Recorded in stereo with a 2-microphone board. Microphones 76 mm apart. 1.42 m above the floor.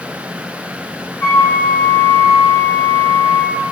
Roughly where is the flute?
Left.